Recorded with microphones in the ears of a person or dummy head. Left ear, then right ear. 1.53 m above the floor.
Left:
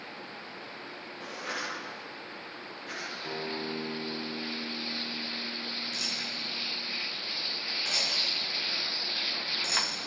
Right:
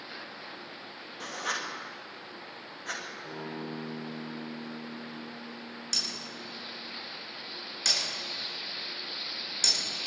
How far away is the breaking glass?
About 7.5 m.